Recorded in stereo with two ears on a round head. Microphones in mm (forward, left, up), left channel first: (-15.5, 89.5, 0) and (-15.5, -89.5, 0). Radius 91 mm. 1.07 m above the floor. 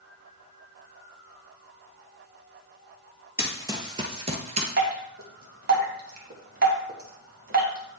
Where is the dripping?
45° right (ahead or behind), 1.3 m.